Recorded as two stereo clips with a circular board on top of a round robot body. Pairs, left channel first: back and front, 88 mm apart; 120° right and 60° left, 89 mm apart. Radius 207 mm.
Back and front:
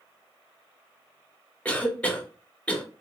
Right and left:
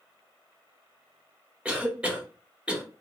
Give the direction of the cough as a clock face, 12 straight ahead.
8 o'clock.